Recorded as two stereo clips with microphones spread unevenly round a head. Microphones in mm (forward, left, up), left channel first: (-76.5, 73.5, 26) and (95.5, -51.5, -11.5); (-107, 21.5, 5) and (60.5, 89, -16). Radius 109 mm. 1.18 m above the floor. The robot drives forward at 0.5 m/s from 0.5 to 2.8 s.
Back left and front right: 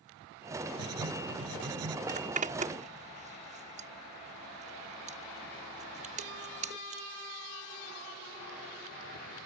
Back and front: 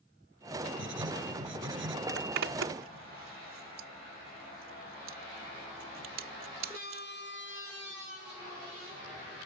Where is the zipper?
20° left.